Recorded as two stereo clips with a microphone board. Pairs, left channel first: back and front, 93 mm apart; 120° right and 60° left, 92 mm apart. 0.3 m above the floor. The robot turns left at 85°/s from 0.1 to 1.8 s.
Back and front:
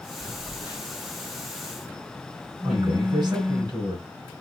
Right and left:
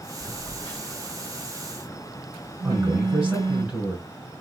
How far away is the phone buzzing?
About 1.5 m.